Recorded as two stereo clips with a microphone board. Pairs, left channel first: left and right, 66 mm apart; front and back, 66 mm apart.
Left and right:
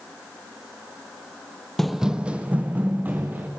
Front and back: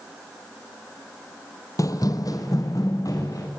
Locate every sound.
1.8 s running footsteps: 5° left, 0.6 m; by 3.5 s 30° right, 2.5 m